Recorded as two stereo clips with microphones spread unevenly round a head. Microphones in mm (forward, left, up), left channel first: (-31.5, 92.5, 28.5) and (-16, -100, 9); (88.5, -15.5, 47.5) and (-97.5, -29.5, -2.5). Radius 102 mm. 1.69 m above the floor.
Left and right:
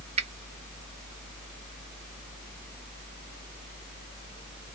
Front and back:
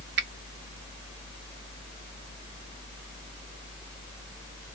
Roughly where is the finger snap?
Behind right.